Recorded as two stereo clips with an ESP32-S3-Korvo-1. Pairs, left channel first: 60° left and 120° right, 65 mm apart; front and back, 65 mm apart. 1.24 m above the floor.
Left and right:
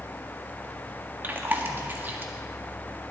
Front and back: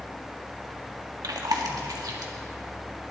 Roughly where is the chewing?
Behind.